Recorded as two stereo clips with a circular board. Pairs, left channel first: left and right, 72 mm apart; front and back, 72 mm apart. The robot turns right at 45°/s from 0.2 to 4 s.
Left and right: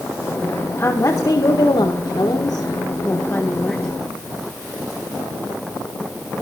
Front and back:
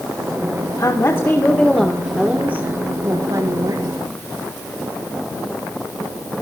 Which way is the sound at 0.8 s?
40° left.